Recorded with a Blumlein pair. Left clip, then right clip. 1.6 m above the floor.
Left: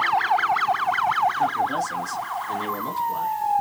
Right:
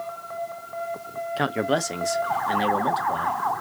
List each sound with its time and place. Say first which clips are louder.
1.4 s a man speaking: left 2 dB; 40° right, 0.7 m; by 3.4 s 30° right, 1.9 m